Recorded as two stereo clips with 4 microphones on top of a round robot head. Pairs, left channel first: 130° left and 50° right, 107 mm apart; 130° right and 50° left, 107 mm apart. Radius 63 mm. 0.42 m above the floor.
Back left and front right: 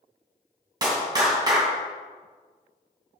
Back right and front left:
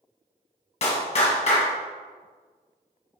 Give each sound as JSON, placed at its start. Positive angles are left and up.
{"t": 0.8, "sound": "a clap", "azimuth_deg": -105, "distance_m": 2.5}